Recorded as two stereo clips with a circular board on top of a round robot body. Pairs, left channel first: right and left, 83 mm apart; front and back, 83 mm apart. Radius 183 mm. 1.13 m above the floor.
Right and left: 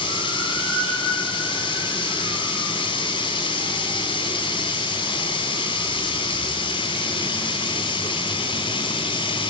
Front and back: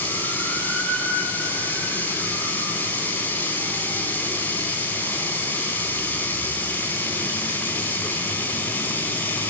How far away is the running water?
About 1.1 m.